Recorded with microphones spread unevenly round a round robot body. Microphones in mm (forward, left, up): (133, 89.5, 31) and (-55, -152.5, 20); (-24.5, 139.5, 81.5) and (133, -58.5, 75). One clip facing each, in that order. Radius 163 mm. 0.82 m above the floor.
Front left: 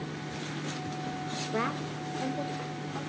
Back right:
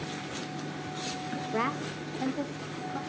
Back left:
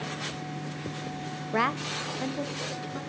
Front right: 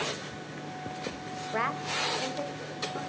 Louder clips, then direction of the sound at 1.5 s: Even, back left 5 dB; 140° left.